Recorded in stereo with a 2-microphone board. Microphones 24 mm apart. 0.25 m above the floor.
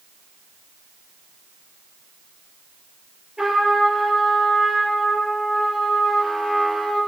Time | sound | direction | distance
3.4 | a trumpet | 30° right (ahead or behind) | 5.5 m